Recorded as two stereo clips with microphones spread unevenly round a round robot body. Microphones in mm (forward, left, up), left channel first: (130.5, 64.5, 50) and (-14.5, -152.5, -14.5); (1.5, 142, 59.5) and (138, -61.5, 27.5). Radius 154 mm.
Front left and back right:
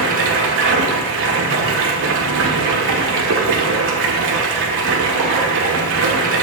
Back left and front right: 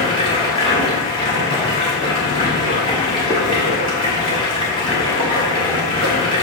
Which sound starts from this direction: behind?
Running water, at 0.0 s.